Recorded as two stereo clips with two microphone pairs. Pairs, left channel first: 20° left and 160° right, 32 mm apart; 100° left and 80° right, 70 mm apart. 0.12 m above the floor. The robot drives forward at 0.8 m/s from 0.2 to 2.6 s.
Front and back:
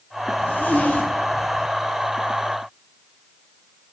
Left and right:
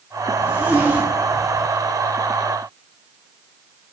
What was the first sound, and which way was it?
A zipper, 15° right.